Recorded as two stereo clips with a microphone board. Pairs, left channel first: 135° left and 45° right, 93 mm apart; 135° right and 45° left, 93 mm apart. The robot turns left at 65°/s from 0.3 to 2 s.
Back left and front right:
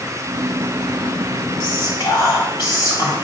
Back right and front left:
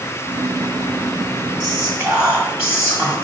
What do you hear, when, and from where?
1.6 s whispering: 145° left, 1.3 m; by 3.1 s 120° left, 1.3 m